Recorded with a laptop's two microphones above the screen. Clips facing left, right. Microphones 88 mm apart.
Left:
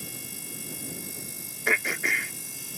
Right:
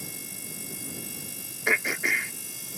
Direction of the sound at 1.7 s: 5° right (ahead or behind).